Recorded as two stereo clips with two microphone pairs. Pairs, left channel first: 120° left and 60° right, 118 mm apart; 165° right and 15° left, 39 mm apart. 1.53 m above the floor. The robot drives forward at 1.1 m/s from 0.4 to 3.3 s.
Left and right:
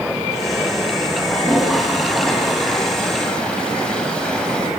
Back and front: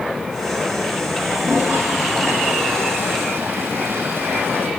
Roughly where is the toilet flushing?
Ahead left.